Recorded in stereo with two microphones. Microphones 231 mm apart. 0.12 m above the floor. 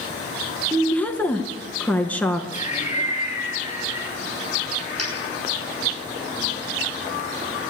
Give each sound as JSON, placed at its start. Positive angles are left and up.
{"t": 0.7, "sound": "a woman speaking", "side_deg": 5, "distance_m": 1.3}
{"t": 2.5, "sound": "laughter", "side_deg": 30, "distance_m": 2.5}
{"t": 5.0, "sound": "a dropped coin", "side_deg": -85, "distance_m": 7.5}